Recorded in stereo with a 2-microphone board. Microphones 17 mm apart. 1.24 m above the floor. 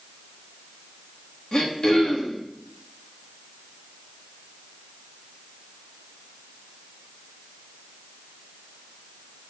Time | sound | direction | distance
1.5 | throat clearing | 50° left (ahead or behind) | 2.5 m